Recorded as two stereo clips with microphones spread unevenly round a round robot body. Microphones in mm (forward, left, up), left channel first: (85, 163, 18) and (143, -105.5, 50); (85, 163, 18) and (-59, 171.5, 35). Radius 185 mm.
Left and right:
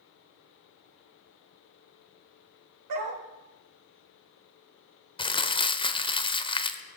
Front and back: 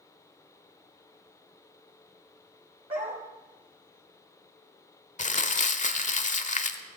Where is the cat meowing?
No cat meowing in this recording.